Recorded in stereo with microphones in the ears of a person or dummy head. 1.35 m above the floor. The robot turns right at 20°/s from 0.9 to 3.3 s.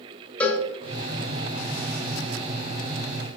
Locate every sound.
0.4 s a cowbell: centre (ahead or behind), 0.5 m